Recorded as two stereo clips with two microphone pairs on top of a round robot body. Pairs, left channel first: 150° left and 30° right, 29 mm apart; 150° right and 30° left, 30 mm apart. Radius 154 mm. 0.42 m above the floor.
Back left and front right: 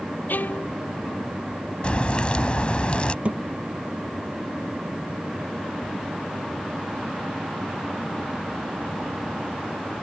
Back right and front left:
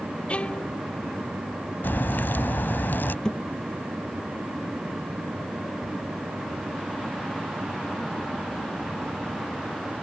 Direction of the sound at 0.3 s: 160° left.